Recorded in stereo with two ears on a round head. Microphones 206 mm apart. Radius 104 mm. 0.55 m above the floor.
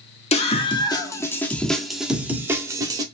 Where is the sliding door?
No sliding door in this recording.